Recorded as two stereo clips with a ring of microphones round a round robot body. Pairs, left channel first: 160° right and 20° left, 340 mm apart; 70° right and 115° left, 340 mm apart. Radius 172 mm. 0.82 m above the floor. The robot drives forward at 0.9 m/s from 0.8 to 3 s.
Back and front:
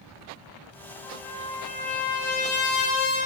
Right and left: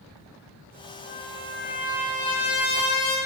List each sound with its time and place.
1.0 s a trumpet: 80° right, 4.5 m; by 3.2 s 100° right, 4.5 m